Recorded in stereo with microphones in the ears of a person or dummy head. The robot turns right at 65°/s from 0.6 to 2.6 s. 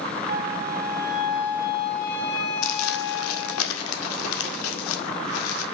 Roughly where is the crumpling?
Left.